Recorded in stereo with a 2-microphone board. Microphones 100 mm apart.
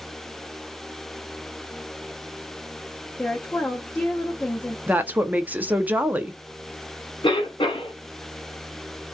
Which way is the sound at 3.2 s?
Centre (ahead or behind).